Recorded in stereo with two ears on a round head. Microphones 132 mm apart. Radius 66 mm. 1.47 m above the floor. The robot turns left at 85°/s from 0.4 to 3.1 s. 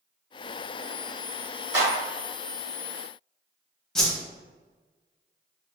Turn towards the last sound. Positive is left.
turn(degrees=5)  # may be behind; listen again after turning